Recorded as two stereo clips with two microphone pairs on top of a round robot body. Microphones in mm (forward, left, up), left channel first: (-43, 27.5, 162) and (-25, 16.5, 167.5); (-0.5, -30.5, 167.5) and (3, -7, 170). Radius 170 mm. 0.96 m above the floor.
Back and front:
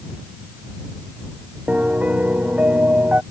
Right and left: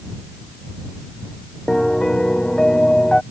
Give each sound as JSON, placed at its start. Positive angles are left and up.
{"t": 1.7, "sound": "a piano", "azimuth_deg": -25}